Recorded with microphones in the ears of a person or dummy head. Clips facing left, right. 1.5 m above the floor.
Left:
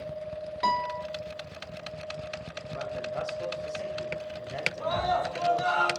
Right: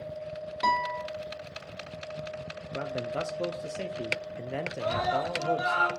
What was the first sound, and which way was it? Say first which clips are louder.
A guitar: right 1 dB; 5° left (ahead or behind).